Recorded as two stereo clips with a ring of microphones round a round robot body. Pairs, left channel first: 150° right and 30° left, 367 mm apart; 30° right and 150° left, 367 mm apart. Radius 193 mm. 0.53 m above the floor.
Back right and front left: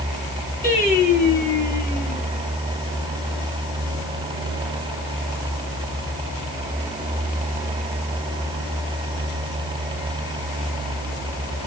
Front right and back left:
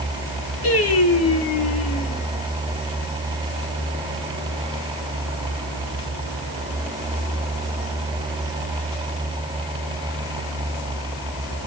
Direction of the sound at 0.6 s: 80° right.